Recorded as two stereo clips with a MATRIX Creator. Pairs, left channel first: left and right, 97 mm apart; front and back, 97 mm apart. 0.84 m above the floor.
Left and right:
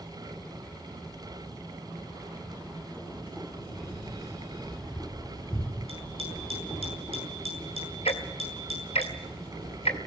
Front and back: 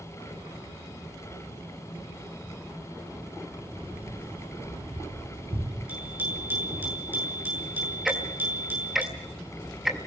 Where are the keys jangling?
175° right, 6.5 m; by 6.9 s 170° left, 10.5 m.